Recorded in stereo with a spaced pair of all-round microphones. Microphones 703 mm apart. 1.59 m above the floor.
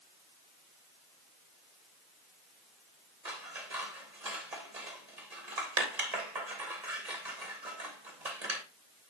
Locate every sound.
3.2 s scissors: 65° right (ahead or behind), 3 m